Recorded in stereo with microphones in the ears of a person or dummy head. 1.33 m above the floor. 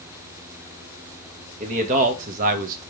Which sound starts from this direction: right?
A man speaking, at 1.6 s.